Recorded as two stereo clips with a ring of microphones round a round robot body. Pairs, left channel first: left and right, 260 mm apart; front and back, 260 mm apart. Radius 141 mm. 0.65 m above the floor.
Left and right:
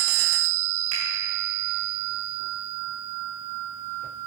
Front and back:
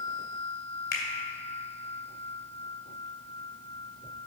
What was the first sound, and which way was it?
A finger snap, 50° right.